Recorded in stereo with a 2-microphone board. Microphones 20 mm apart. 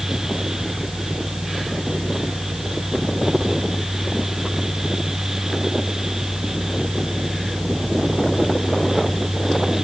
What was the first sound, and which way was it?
Only background noise.